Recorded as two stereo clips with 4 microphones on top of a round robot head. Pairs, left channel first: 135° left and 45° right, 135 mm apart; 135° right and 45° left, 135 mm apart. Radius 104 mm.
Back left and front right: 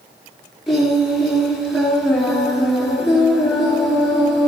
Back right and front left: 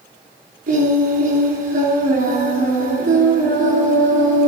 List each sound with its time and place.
0.7 s singing: 40° left, 4 m